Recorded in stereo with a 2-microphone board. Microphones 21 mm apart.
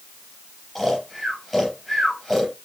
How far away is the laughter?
No laughter in this recording.